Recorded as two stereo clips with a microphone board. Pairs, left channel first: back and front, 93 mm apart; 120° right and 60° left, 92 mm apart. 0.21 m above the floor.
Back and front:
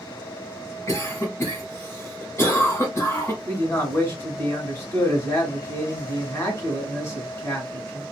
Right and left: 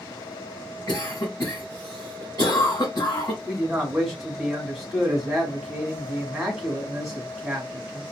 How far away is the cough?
About 1.8 m.